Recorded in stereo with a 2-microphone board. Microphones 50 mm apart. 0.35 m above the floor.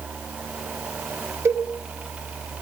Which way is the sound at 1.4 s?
60° right (ahead or behind).